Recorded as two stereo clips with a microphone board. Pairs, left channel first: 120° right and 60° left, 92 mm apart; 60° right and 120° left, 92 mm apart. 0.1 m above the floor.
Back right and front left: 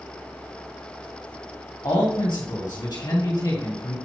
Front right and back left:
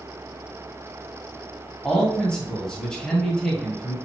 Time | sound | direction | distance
1.8 | a man speaking | 140° right | 1.9 m